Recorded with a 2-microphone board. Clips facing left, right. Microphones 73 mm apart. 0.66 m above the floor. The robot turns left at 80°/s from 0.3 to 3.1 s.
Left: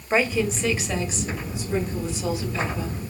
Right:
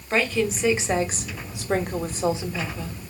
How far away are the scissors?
I don't hear scissors.